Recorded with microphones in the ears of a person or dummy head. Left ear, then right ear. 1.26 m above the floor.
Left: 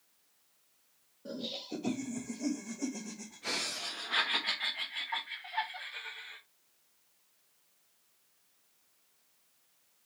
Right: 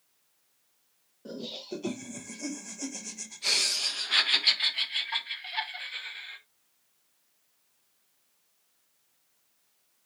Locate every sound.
1.2 s laughter: 30° right (ahead or behind), 1.7 m; by 6.4 s 60° right (ahead or behind), 2.5 m